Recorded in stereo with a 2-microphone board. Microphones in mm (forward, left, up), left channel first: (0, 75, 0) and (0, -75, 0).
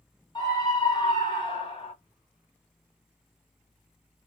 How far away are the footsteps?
I don't hear footsteps.